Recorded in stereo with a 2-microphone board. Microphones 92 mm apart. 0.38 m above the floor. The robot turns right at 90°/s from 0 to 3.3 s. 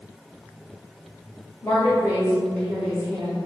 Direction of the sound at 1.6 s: 85° left.